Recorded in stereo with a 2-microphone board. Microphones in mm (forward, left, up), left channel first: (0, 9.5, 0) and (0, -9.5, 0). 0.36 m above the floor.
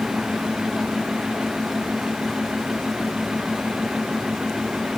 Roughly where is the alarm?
I don't hear an alarm.